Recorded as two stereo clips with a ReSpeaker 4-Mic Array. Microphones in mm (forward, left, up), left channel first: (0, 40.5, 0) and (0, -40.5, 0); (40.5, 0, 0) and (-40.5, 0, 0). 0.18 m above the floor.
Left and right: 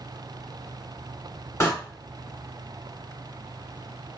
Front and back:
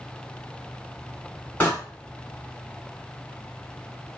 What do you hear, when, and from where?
1.6 s a door slam: 60° left, 1.5 m